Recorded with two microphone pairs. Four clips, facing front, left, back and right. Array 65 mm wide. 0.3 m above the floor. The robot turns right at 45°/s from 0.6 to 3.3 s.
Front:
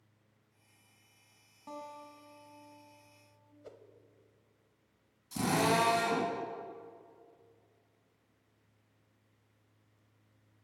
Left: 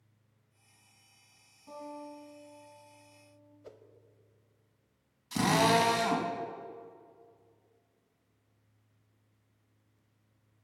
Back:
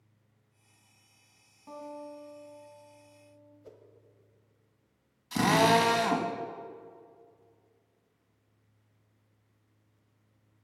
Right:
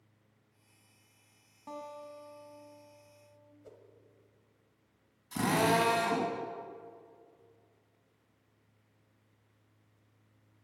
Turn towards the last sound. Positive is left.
turn(degrees=160)